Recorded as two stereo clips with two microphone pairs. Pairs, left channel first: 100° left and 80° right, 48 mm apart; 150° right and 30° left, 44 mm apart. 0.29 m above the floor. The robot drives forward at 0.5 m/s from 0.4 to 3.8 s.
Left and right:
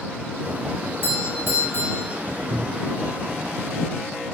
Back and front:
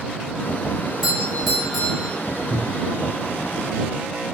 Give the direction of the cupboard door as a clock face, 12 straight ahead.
4 o'clock.